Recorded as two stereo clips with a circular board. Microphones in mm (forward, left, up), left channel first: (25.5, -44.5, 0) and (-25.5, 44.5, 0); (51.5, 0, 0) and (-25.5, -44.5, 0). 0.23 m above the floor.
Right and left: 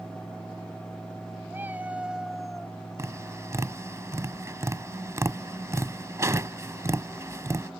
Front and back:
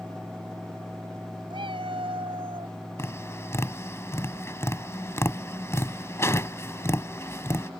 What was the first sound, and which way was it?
A cat meowing, 170° right.